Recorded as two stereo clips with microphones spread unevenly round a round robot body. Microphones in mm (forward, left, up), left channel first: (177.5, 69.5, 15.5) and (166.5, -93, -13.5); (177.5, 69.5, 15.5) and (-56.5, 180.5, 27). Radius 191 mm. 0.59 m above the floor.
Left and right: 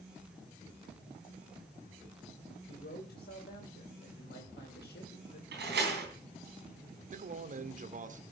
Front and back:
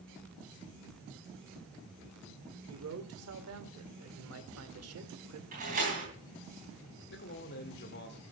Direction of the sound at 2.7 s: 135° left.